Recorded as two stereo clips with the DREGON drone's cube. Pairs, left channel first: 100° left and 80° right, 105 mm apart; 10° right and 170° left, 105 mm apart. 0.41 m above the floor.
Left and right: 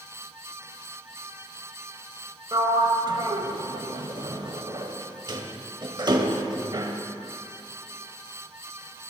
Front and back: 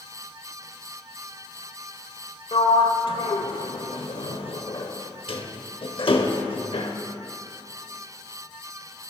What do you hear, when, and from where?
2.5 s a sliding door: 35° right, 0.8 m